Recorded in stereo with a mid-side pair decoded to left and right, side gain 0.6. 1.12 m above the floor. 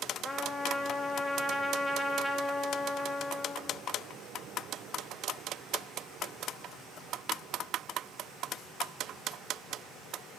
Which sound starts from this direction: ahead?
A trumpet, at 0.2 s.